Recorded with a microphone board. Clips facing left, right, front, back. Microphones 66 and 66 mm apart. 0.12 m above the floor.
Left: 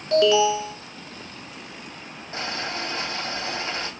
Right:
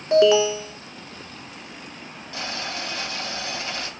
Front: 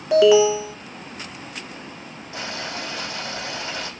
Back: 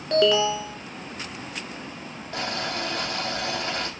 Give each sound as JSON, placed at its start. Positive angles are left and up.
{"t": 0.1, "sound": "an alarm", "azimuth_deg": -70, "distance_m": 1.2}
{"t": 2.3, "sound": "boiling", "azimuth_deg": 150, "distance_m": 4.5}